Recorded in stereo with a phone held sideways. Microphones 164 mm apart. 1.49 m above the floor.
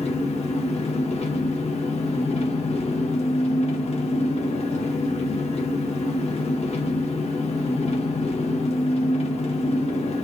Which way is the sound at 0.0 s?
45° left (ahead or behind).